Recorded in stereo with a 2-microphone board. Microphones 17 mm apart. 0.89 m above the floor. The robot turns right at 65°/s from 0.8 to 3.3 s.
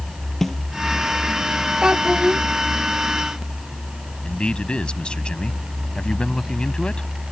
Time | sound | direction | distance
0.4 | a snare drum | 20° left (ahead or behind) | ?
1.8 | a child speaking | 130° right | ?
4.2 | a man speaking | 80° left | ?